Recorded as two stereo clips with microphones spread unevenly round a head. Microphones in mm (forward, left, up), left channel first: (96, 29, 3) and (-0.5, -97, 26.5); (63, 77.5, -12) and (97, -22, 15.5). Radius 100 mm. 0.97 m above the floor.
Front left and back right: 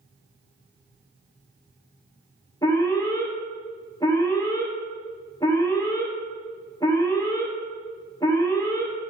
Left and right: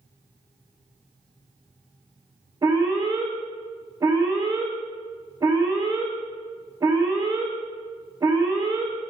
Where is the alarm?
15° right, 4.5 m.